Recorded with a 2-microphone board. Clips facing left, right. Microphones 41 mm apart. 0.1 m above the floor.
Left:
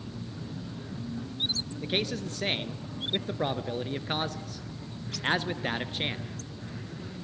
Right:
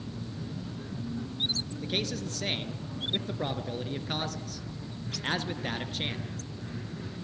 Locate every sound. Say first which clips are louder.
1.8 s a man speaking: left 3 dB; 20° left (ahead or behind), 1.3 m